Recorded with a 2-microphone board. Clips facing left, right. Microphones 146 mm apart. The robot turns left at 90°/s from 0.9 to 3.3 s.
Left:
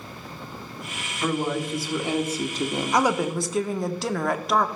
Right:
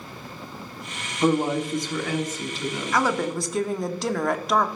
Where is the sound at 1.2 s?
135° right, 1.0 m; by 3.1 s 60° left, 1.0 m.